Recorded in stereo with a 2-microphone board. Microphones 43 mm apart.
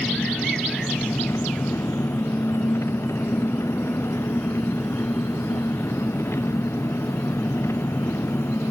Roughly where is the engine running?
Left.